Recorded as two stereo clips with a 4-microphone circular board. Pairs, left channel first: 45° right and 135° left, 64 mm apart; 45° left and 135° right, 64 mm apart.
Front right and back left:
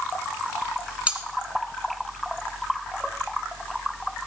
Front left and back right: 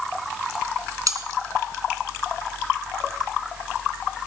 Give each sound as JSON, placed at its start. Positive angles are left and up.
{"t": 1.1, "sound": "cutlery clinking", "azimuth_deg": -155, "distance_m": 2.0}